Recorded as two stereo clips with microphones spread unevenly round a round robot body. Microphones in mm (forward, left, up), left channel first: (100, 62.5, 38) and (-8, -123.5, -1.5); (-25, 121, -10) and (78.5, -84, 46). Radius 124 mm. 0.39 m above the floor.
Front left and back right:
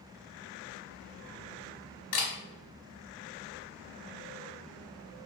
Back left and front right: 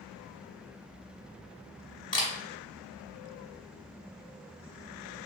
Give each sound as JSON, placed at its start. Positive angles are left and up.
{"t": 2.1, "sound": "a camera shutter", "azimuth_deg": 45, "distance_m": 1.0}